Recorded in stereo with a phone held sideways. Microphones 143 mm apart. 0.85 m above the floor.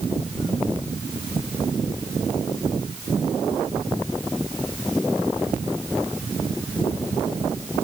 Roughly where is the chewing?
I don't hear chewing.